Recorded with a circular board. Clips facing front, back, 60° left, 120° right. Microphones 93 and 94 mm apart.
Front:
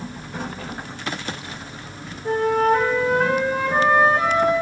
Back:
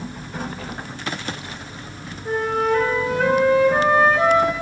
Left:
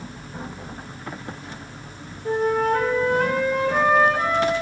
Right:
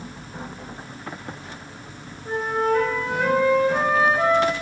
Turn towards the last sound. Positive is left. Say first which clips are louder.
# front 3 dB, left 2 dB
turn(degrees=35)